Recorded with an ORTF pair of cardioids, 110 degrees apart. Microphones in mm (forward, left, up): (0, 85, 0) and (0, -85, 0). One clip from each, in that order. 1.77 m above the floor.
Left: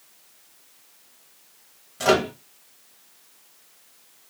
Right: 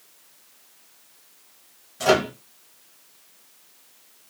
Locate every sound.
2.0 s a microwave: 10° left, 1.0 m